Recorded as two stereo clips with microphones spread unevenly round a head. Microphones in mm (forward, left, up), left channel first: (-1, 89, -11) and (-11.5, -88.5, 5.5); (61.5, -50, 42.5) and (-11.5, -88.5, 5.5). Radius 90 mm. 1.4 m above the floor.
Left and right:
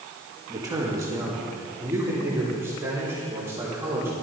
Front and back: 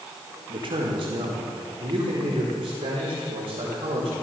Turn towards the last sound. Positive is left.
turn(degrees=-170)